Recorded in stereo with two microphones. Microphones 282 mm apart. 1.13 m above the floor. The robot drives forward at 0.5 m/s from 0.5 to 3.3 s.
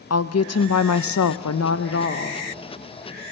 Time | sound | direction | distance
0.1 | a woman speaking | 65° left (ahead or behind) | 0.7 m